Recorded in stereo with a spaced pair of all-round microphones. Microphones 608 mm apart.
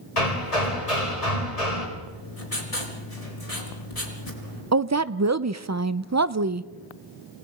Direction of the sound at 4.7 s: 30° right (ahead or behind).